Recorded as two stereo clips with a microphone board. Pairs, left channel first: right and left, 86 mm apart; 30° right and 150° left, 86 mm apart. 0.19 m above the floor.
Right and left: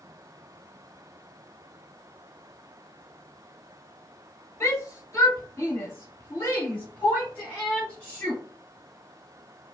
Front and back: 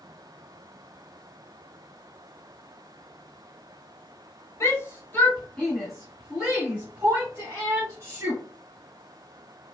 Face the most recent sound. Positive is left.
turn(degrees=-165)